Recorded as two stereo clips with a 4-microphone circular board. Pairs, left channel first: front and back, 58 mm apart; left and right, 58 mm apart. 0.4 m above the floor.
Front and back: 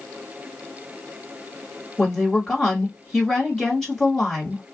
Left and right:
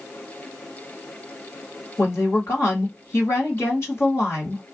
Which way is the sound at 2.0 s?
80° left.